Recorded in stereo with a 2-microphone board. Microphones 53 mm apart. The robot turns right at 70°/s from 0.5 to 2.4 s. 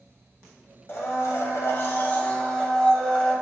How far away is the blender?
About 2 m.